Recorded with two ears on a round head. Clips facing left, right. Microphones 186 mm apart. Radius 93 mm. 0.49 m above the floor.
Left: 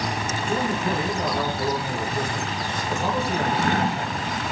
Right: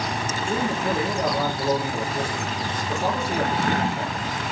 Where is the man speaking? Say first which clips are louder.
Even; 10° right (ahead or behind), 9 m.